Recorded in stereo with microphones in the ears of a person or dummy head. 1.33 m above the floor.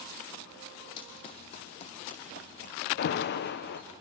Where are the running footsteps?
25° left (ahead or behind), 2.5 m; by 3.9 s 50° left (ahead or behind), 4 m.